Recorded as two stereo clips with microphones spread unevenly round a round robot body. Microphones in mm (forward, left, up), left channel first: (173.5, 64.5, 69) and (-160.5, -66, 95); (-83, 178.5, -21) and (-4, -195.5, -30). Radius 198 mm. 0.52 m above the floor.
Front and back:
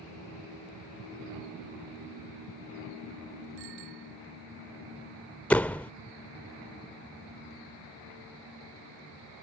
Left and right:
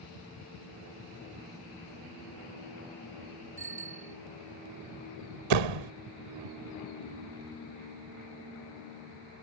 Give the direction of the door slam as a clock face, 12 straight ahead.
2 o'clock.